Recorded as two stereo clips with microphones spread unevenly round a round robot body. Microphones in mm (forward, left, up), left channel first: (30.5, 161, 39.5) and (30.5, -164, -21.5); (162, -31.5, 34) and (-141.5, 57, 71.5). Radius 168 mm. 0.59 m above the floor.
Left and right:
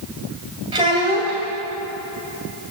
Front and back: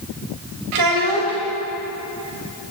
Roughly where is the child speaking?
Behind.